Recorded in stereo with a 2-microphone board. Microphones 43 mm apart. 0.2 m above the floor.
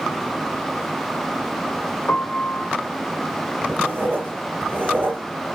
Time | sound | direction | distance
2.1 | a piano | 55° left (ahead or behind) | 1.0 m
3.7 | writing | 40° right (ahead or behind) | 5 m